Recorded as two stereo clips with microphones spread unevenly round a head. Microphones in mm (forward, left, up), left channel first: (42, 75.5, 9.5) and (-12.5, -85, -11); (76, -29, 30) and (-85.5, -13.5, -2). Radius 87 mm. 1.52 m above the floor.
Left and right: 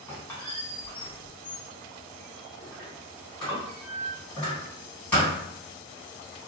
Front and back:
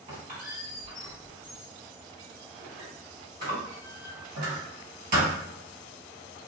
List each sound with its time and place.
0.1 s a squeak: 145° left, 1.9 m